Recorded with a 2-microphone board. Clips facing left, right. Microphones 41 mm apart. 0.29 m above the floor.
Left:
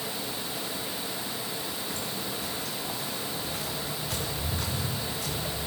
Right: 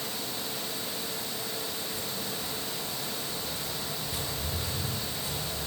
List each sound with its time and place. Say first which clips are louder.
1.9 s footsteps: left 2 dB; 80° left, 9.5 m; by 5.7 s 85° left, 6.5 m